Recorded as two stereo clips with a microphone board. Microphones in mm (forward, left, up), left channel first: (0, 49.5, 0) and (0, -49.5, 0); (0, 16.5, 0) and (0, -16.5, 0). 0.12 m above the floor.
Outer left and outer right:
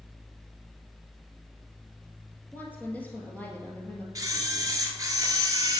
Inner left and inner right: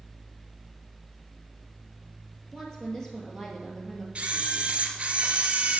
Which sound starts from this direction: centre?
A woman speaking, at 2.5 s.